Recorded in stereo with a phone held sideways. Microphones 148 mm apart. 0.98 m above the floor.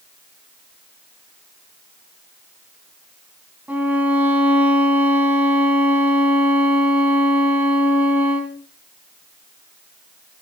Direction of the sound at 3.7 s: 10° right (ahead or behind).